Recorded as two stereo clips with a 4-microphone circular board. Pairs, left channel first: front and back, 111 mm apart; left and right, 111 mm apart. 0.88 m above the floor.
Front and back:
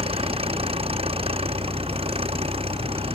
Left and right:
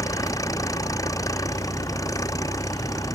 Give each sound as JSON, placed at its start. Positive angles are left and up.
{"t": 0.0, "sound": "an engine running", "azimuth_deg": 150}